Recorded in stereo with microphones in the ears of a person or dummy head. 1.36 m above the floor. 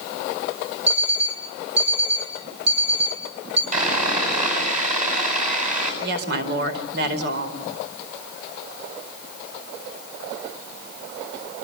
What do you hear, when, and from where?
0.9 s an alarm clock: 40° right (ahead or behind), 9.5 m
3.7 s sawing: 45° right (ahead or behind), 7 m
6.0 s a woman speaking: 65° right (ahead or behind), 4.5 m